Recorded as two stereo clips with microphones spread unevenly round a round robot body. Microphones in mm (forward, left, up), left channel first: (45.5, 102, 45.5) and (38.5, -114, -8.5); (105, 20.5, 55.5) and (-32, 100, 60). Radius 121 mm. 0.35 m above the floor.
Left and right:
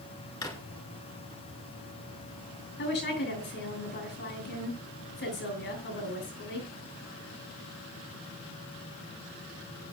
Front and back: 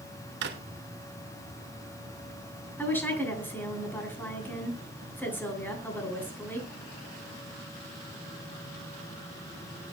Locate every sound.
0.4 s a drawer: 165° left, 1.4 m
2.8 s a woman speaking: 50° left, 7.5 m